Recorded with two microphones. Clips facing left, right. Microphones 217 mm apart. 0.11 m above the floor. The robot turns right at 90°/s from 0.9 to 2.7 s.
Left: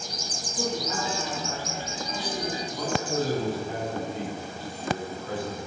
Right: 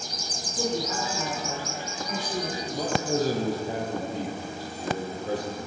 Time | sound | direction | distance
0.6 | a woman speaking | straight behind | 3 m
2.7 | a man speaking | 40° right (ahead or behind) | 3.5 m